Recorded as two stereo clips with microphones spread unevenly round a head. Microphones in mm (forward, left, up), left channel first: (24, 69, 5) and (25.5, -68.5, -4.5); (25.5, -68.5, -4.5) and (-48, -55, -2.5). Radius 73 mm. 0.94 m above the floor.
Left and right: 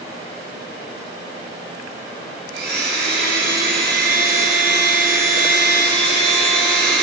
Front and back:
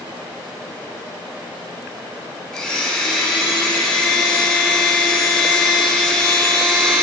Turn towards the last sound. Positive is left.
turn(degrees=-95)